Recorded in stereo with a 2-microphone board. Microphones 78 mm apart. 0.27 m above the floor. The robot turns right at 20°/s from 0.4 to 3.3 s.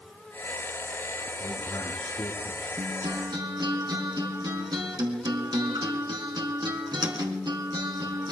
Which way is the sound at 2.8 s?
65° right (ahead or behind).